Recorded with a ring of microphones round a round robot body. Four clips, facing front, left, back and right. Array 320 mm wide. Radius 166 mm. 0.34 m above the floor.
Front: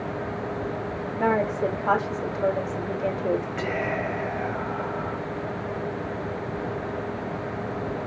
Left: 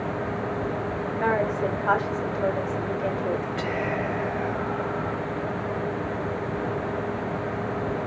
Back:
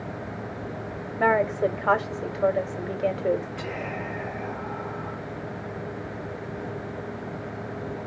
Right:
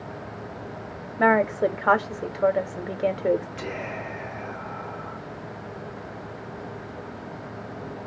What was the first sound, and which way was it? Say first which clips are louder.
A woman speaking: right 5 dB, back 2 dB; 110° right.